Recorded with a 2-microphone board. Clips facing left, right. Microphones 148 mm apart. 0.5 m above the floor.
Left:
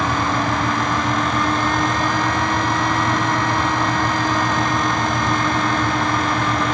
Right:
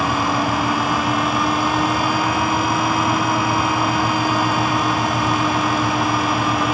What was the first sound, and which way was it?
Only background noise.